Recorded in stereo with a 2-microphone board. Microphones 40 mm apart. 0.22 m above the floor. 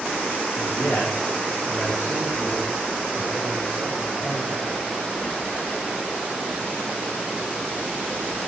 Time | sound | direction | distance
0.6 | a man speaking | 55° left (ahead or behind) | 4.5 m